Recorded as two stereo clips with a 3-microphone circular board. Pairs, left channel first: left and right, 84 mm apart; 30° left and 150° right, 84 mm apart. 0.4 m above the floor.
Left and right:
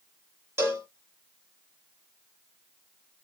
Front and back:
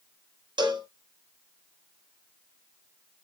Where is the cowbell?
145° right, 2 m.